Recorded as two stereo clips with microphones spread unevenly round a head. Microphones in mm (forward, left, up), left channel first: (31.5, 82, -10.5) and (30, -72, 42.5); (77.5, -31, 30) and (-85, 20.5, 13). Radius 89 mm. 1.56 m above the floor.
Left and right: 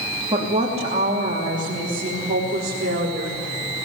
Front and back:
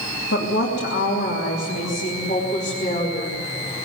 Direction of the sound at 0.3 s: 35° right.